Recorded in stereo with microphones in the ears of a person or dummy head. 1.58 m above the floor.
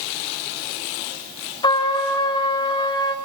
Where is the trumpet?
25° left (ahead or behind), 3 m.